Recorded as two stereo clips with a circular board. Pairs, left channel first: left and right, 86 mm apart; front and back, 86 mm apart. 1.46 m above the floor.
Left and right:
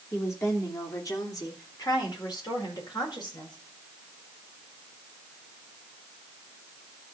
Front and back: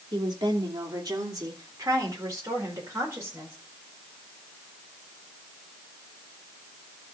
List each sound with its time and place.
0.1 s a woman speaking: 145° left, 2.5 m; by 3.5 s 120° left, 5 m